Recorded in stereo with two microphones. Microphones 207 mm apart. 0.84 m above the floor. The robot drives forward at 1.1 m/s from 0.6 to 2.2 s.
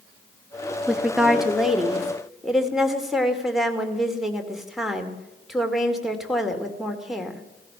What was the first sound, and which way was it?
A woman speaking, 5° right (ahead or behind).